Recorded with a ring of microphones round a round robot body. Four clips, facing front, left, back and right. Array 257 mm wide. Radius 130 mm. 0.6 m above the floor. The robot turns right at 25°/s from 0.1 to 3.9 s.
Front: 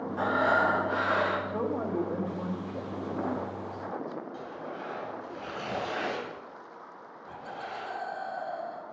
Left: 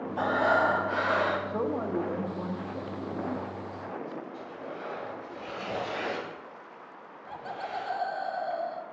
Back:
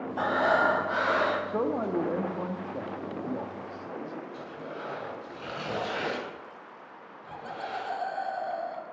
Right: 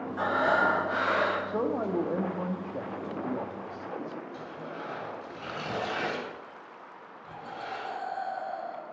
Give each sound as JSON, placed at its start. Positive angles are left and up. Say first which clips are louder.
{"t": 0.2, "sound": "breathing", "louder": "left 1 dB, back 1 dB", "azimuth_deg": 135, "distance_m": 3.0}
{"t": 1.5, "sound": "a man speaking", "louder": "right 1 dB, back 2 dB", "azimuth_deg": -160, "distance_m": 0.7}
{"t": 4.3, "sound": "tearing paper", "louder": "even, even", "azimuth_deg": -115, "distance_m": 3.5}
{"t": 7.3, "sound": "laughter", "louder": "left 2 dB, back 3 dB", "azimuth_deg": 120, "distance_m": 0.8}